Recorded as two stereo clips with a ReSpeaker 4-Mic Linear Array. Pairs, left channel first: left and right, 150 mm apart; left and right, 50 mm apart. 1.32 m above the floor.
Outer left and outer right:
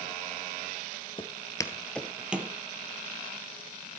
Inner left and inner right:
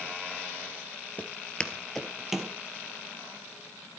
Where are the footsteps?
35° left (ahead or behind), 1.6 m; by 2.5 s 10° right (ahead or behind), 1.9 m.